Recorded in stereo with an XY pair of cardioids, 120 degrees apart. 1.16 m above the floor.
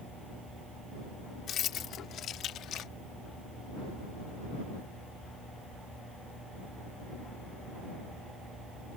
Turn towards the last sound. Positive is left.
turn(degrees=70)